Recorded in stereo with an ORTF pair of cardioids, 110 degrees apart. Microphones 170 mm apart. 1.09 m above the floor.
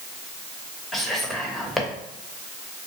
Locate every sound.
0.9 s whispering: straight ahead, 1.0 m